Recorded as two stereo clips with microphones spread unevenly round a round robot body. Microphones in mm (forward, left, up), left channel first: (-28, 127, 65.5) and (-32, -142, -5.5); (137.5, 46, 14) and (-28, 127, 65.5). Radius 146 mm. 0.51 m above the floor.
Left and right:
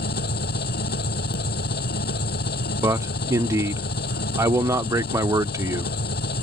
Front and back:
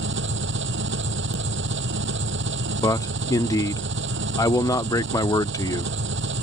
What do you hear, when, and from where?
0.0 s an engine running: 140° left
2.8 s a man speaking: 45° right